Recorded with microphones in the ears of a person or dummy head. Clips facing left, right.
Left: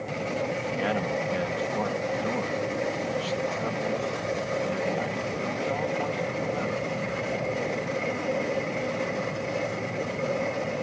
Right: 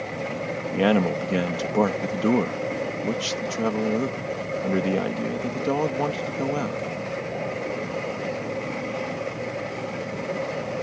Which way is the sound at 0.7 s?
65° right (ahead or behind).